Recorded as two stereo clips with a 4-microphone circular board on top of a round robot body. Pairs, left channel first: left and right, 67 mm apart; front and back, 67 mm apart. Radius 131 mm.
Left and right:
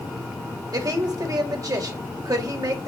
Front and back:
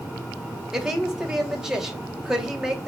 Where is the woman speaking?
100° right, 2.5 m.